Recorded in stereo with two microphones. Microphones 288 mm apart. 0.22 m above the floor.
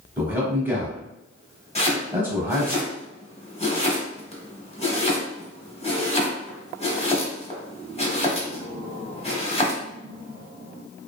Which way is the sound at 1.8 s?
20° left (ahead or behind).